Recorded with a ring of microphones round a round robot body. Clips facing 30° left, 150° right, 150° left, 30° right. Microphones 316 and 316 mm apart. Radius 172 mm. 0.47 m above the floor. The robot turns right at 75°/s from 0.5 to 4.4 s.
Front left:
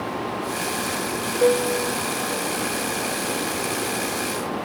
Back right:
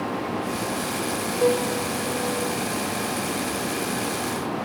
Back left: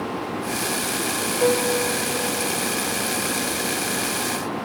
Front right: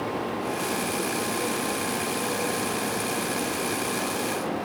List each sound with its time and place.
1.4 s a piano: 125° left; by 2.6 s 145° right